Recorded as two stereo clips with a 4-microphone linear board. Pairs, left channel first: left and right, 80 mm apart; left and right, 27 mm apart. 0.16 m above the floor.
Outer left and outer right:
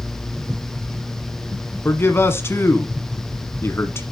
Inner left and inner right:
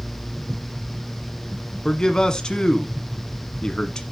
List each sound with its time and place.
1.9 s a man speaking: 30° left (ahead or behind), 1.3 m